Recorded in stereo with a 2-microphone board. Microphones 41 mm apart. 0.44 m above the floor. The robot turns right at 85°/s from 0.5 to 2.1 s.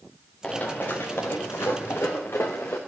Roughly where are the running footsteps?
Left.